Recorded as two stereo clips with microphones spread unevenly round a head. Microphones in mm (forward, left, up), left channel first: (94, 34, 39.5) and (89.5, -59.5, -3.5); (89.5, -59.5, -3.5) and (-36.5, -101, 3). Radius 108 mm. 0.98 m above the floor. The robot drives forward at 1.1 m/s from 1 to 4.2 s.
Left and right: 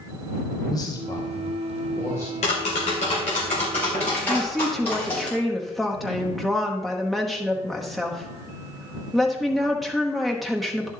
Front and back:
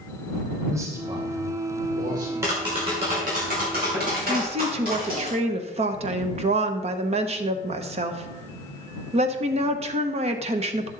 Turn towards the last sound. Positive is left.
turn(degrees=-155)